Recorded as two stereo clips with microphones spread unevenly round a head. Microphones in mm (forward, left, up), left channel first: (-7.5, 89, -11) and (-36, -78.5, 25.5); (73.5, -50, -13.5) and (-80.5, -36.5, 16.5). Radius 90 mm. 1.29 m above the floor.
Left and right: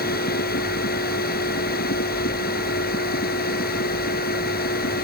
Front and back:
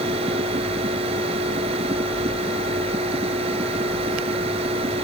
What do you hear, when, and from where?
0.0 s a machine running: 115° left